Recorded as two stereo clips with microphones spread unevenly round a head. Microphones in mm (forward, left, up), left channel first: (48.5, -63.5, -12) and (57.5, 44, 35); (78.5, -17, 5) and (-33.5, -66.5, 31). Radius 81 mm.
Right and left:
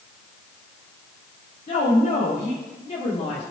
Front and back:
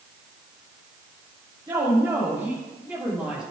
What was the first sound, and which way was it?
A woman speaking, 95° right.